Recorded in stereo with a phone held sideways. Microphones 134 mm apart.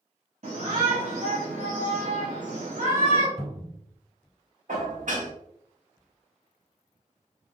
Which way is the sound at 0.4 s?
55° right (ahead or behind).